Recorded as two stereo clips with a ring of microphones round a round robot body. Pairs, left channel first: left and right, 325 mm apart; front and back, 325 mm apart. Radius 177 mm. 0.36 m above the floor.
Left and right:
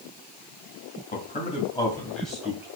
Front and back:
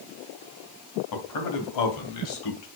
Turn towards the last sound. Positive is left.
turn(degrees=-10)